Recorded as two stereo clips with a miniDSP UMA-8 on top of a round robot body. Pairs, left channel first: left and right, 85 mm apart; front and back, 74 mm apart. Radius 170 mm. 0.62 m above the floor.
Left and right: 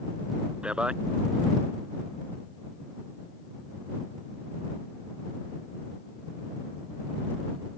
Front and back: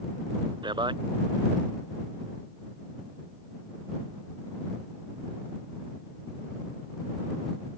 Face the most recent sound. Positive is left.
turn(degrees=-170)